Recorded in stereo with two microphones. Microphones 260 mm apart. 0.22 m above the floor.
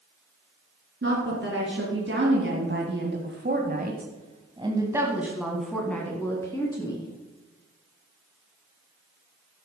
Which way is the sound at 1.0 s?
45° right (ahead or behind).